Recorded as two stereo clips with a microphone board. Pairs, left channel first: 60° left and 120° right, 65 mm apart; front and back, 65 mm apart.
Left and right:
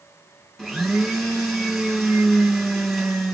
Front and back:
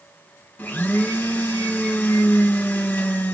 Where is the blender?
30° right, 1.6 m.